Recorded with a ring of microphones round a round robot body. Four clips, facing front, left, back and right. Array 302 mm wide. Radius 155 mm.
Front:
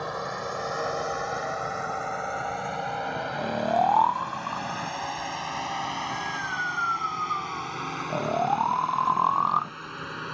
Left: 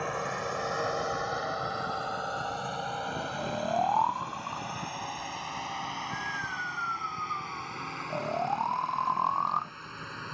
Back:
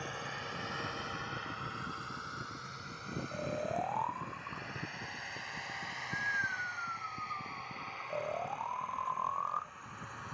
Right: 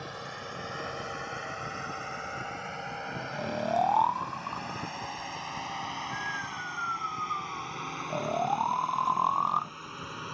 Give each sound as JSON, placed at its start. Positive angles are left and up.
{"t": 0.0, "sound": "a drone", "azimuth_deg": 40}
{"t": 3.3, "sound": "snoring", "azimuth_deg": -10}